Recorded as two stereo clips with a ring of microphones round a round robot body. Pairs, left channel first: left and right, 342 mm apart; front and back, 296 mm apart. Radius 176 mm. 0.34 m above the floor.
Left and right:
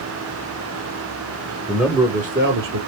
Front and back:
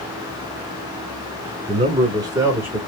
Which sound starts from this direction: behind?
A man speaking, at 1.7 s.